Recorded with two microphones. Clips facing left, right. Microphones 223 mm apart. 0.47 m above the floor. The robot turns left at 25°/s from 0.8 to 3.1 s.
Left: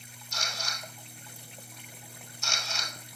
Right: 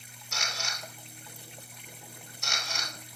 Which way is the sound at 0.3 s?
80° right.